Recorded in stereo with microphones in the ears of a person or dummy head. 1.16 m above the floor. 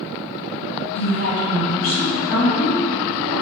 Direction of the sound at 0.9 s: 55° left (ahead or behind).